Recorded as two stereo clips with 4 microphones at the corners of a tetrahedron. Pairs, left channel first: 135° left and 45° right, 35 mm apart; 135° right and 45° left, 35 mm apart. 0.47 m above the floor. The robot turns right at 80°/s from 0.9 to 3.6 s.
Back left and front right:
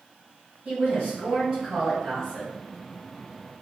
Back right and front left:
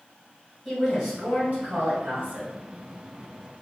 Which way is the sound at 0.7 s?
35° right.